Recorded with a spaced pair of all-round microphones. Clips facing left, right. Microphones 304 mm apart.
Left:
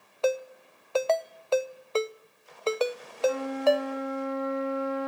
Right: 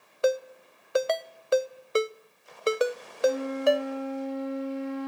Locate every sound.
0.2 s a ringtone: 20° right (ahead or behind), 0.6 m
3.2 s a flute: 80° left, 8.5 m